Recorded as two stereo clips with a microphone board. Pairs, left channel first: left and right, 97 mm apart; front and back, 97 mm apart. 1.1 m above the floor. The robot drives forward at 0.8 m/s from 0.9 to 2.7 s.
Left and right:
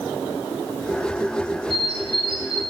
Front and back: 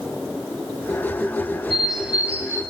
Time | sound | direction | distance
1.7 | a bird | 90° right | 1.9 m